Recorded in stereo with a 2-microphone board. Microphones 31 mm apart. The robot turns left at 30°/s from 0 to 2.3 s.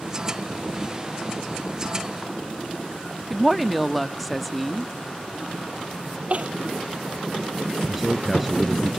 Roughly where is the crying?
Right.